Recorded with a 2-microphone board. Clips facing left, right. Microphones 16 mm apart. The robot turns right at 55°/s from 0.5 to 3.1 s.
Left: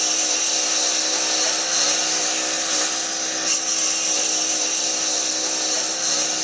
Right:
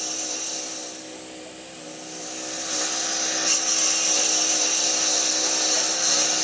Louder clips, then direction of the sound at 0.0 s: Left 8 dB; 30° left (ahead or behind).